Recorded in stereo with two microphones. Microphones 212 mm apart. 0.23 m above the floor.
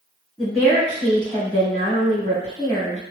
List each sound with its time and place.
0.4 s a woman speaking: 5° left (ahead or behind), 1.8 m